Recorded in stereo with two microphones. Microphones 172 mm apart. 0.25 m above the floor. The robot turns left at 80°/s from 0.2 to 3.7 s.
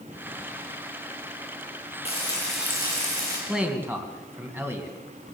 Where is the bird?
I don't hear a bird.